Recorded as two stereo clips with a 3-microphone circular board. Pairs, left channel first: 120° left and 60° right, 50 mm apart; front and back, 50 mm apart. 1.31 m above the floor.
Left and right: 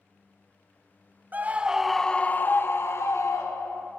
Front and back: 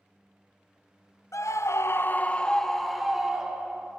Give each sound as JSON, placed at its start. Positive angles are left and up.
{"t": 1.3, "sound": "a scream", "azimuth_deg": -5, "distance_m": 0.9}